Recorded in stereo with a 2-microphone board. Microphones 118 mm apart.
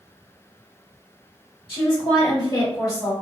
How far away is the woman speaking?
About 1.7 m.